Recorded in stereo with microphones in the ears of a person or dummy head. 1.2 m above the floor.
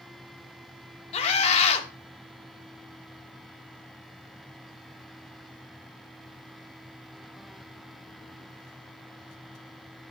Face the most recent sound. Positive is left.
turn(degrees=35)  # may be behind; listen again after turning